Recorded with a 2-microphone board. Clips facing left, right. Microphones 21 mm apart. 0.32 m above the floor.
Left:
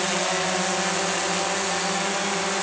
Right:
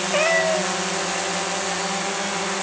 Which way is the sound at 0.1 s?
70° right (ahead or behind).